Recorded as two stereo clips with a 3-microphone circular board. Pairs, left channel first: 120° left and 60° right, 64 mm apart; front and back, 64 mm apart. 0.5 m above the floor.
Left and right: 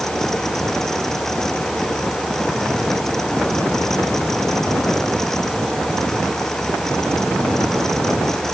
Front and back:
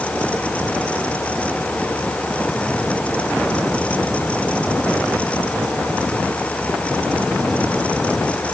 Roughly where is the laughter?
I don't hear laughter.